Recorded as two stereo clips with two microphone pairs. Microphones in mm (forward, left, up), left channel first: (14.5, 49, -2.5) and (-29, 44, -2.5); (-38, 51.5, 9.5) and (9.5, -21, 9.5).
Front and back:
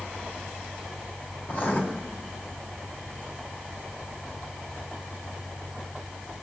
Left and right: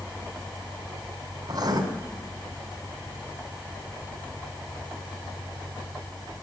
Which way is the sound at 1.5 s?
35° right.